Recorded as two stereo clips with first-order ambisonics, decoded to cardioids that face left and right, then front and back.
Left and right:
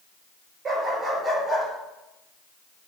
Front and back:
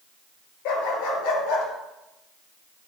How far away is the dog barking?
About 3.5 m.